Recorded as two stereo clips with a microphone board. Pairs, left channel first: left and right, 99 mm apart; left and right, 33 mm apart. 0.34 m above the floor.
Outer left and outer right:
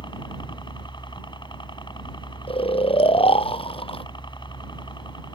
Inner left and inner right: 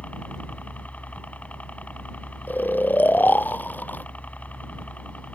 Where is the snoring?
65° left (ahead or behind).